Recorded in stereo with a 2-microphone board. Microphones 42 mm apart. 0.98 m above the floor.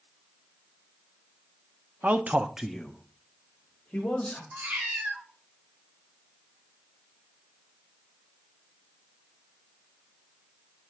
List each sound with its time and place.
2.0 s a man speaking: 45° right (ahead or behind), 0.6 m; by 4.4 s 30° left (ahead or behind), 2.0 m
4.5 s a cat meowing: 50° right (ahead or behind), 1.2 m